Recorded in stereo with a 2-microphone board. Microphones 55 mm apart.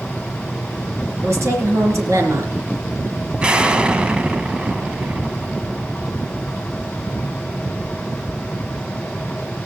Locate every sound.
1.2 s a woman speaking: 60° right (ahead or behind), 3 m
3.4 s an explosion: 20° right (ahead or behind), 0.7 m